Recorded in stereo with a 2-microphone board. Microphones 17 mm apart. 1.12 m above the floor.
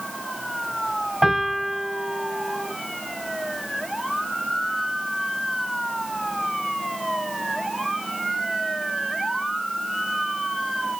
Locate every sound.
1.2 s a piano: 25° right (ahead or behind), 4 m